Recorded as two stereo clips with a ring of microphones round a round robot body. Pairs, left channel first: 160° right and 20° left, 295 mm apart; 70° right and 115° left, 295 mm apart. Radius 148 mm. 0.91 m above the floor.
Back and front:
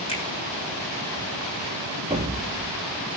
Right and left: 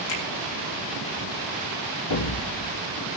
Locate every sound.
0.1 s a finger snap: 85° right, 9.5 m
2.1 s an explosion: 45° right, 1.5 m